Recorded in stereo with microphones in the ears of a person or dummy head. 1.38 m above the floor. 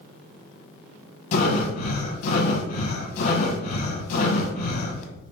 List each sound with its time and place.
1.3 s breathing: 45° left (ahead or behind), 0.7 m